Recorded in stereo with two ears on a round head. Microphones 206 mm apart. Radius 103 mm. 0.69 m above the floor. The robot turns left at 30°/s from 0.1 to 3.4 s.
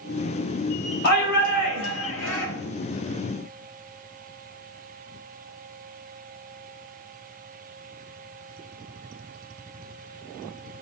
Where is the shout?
135° left, 3.5 m; by 2.5 s 90° left, 3.5 m.